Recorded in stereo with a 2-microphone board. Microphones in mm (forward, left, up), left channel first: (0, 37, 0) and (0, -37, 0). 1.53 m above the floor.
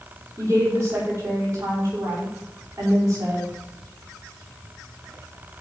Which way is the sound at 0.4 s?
35° right (ahead or behind).